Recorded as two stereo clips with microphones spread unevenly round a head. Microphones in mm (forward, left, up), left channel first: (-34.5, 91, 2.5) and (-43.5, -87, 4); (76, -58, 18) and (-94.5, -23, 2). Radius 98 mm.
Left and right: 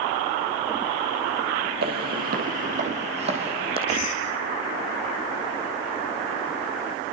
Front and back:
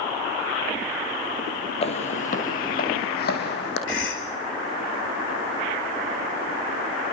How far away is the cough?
About 6 m.